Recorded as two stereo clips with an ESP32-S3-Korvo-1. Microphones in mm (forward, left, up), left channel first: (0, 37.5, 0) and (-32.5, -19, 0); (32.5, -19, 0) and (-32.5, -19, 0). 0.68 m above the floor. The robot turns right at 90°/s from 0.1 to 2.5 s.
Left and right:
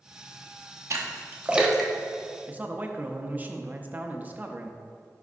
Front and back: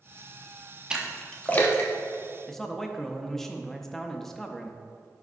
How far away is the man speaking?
About 0.6 m.